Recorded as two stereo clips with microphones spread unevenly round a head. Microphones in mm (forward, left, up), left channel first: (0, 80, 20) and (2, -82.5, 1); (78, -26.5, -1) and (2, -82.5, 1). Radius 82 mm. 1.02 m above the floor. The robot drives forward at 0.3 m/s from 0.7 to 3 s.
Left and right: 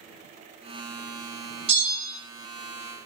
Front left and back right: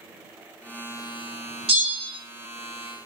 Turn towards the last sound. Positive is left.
turn(degrees=-155)